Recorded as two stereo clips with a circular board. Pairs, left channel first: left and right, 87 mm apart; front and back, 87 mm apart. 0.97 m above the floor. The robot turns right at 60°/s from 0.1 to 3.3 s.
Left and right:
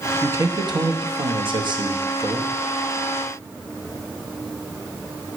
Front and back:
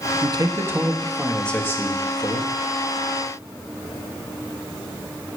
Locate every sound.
0.2 s a man speaking: 150° right, 0.9 m; by 2.6 s 10° right, 0.9 m